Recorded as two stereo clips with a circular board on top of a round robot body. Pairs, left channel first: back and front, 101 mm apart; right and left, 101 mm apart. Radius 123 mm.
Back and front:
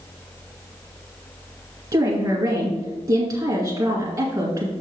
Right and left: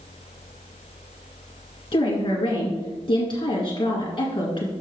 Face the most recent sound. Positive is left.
turn(degrees=-45)